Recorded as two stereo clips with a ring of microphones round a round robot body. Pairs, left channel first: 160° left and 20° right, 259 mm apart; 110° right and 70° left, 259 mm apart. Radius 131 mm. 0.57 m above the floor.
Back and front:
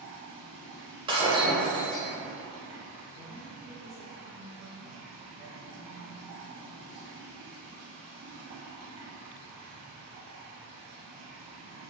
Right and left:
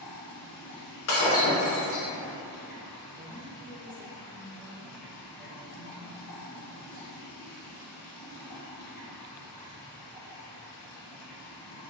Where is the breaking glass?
90° right, 0.6 m.